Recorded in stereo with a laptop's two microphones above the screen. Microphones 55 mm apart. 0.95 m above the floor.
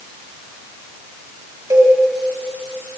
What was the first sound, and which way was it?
A cowbell, 85° right.